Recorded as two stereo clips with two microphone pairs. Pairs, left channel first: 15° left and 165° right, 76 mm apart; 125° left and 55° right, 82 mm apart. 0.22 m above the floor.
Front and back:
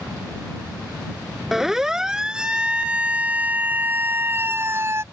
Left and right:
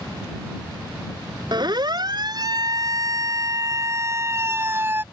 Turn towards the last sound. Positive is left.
turn(degrees=-115)